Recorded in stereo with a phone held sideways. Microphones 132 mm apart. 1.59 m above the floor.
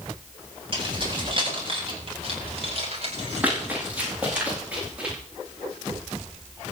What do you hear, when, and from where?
0.7 s keys jangling: 40° right (ahead or behind), 7.5 m; by 4.4 s 70° right (ahead or behind), 3 m
3.4 s running footsteps: 15° right (ahead or behind), 9 m; by 5.2 s 10° right (ahead or behind), 10.5 m